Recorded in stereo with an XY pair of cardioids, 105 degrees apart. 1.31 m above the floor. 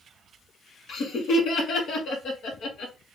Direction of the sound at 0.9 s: 65° left.